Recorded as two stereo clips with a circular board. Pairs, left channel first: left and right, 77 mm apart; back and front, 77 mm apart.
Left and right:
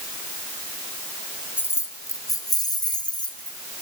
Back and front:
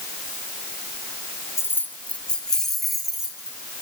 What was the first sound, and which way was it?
Keys jangling, 140° left.